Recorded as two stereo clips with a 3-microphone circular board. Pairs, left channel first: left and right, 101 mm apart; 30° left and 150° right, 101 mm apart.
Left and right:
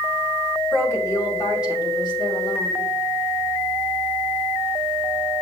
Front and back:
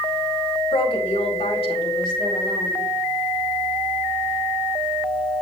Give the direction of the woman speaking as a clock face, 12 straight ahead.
11 o'clock.